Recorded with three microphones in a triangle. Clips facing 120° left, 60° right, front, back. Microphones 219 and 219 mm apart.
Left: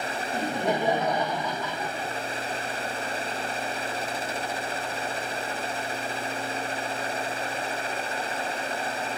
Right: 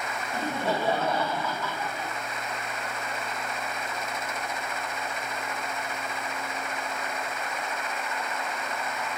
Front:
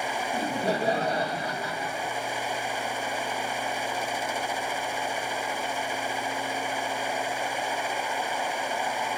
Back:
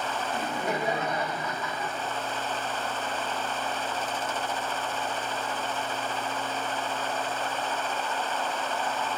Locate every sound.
0.3 s laughter: 50° left, 1.9 m